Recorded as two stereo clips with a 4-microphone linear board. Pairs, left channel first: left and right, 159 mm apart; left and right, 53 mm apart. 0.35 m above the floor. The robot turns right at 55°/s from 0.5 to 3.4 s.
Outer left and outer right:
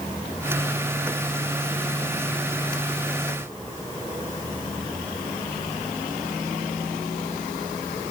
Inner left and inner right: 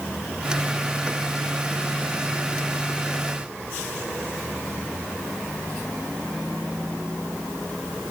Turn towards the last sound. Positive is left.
No sound to turn to.